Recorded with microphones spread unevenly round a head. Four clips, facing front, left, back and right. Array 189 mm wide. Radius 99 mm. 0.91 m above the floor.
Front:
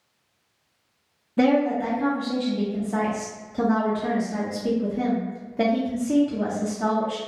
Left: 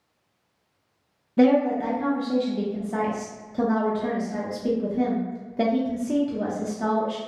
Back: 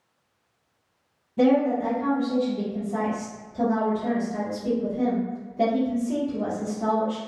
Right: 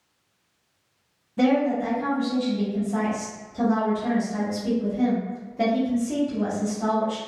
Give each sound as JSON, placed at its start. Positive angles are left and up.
{"t": 1.4, "sound": "a woman speaking", "azimuth_deg": 50, "distance_m": 0.6}